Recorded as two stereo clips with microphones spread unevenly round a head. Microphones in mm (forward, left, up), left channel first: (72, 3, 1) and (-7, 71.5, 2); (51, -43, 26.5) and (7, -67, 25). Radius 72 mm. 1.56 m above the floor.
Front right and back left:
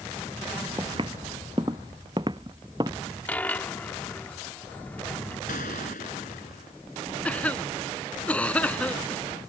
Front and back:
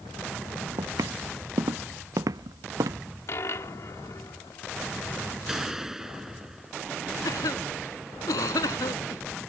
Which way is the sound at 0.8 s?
155° right.